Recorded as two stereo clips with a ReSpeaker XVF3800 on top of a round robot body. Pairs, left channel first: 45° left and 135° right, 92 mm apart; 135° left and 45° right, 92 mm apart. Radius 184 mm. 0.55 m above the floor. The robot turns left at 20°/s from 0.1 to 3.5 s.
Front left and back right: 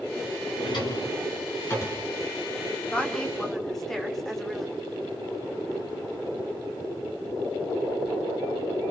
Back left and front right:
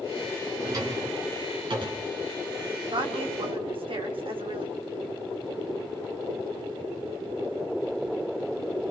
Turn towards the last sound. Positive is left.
turn(degrees=-40)